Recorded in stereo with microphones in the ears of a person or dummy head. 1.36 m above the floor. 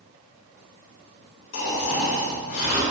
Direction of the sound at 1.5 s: 70° left (ahead or behind).